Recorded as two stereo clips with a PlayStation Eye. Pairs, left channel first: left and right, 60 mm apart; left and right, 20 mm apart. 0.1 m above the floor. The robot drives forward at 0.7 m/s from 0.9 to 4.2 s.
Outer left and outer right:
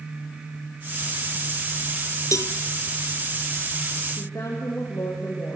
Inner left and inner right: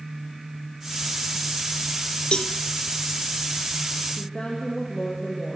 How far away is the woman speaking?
About 4.5 m.